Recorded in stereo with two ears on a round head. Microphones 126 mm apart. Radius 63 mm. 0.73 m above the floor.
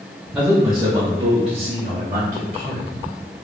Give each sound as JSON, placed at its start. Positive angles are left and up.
{"t": 0.3, "sound": "a man speaking", "side_deg": -5, "distance_m": 1.0}